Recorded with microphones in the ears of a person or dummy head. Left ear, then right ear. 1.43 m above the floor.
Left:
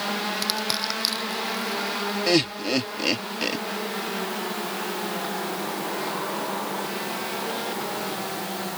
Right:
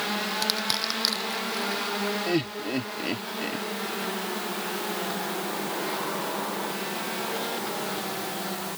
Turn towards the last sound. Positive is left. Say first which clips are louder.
# left 6 dB
turn(degrees=45)  # may be behind; listen again after turning